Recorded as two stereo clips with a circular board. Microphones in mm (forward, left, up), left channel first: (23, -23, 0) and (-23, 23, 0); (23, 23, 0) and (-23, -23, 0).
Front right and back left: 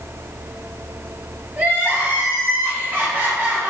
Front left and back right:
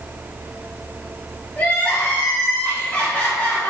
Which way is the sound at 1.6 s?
90° left.